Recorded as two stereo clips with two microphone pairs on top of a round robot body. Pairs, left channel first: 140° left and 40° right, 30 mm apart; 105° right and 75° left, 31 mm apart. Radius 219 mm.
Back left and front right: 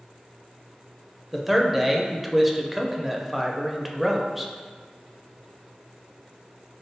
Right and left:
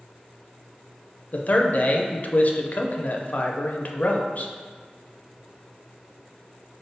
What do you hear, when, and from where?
1.3 s a man speaking: 120° right, 0.7 m